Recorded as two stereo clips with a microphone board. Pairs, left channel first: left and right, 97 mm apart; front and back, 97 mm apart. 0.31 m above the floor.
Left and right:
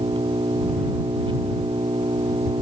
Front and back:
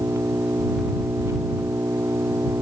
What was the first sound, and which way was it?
An engine running, 120° right.